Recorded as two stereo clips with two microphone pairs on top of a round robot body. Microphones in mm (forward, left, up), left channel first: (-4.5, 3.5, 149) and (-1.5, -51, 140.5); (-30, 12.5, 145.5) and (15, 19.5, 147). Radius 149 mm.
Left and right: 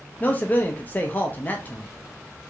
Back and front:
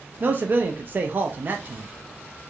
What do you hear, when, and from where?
0.2 s a man speaking: 35° left, 0.6 m